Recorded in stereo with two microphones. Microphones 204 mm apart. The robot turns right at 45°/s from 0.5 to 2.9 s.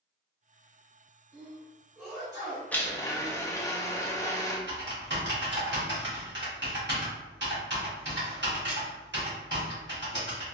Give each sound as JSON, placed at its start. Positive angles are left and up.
{"t": 1.3, "sound": "a sneeze", "azimuth_deg": -65, "distance_m": 1.7}
{"t": 2.7, "sound": "a blender", "side_deg": 5, "distance_m": 0.6}
{"t": 4.7, "sound": "typing on a keyboard", "side_deg": -60, "distance_m": 1.3}